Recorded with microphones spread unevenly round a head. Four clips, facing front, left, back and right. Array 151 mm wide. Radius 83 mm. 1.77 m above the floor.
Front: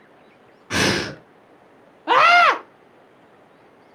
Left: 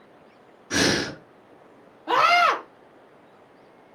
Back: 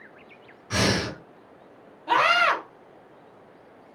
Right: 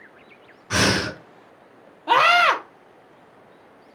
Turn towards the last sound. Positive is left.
turn(degrees=-15)